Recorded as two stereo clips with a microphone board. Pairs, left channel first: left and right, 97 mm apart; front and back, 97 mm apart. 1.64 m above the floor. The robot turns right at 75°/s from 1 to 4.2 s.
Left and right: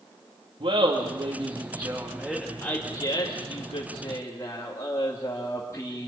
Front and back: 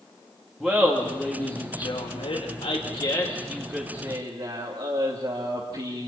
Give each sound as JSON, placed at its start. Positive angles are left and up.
{"t": 0.6, "sound": "laughter", "azimuth_deg": -90, "distance_m": 2.5}